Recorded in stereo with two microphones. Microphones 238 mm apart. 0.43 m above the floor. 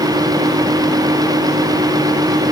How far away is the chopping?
I don't hear chopping.